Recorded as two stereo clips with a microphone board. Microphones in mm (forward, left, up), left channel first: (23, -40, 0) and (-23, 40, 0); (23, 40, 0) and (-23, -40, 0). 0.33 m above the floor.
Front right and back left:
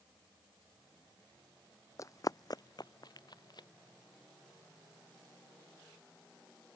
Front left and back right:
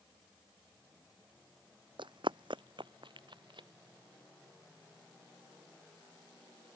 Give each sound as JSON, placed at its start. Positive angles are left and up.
{"t": 2.0, "sound": "running footsteps", "azimuth_deg": -110}